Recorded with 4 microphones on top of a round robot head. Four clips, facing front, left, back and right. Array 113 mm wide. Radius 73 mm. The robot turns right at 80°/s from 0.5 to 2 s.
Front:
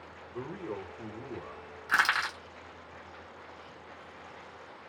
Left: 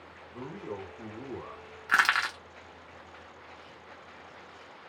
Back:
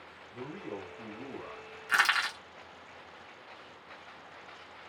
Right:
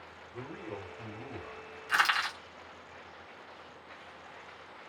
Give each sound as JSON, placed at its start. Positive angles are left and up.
{"t": 0.3, "sound": "a man speaking", "azimuth_deg": 15, "distance_m": 1.6}
{"t": 1.9, "sound": "crushing", "azimuth_deg": 70, "distance_m": 1.0}